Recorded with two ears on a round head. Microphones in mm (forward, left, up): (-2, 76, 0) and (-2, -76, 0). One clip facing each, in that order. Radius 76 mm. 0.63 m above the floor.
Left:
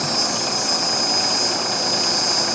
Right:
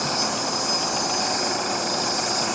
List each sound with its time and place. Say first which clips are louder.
0.0 s an insect: left 1 dB; 35° left (ahead or behind), 1.5 m